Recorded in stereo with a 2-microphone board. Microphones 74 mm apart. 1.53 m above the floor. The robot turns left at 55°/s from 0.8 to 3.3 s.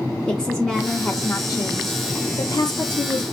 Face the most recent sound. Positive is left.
turn(degrees=35)